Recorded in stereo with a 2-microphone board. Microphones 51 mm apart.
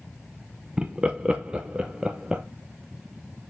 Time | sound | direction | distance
0.8 | laughter | 20° right (ahead or behind) | 0.6 m